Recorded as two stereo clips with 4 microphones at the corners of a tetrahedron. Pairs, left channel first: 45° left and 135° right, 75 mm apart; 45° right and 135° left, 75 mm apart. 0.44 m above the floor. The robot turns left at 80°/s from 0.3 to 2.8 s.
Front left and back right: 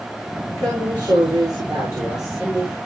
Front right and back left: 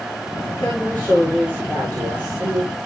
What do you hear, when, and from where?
0.6 s a woman speaking: 85° right, 7 m; by 2.7 s 105° left, 7 m